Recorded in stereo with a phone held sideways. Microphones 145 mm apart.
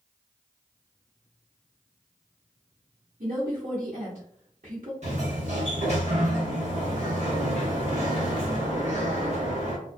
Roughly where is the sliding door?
Right.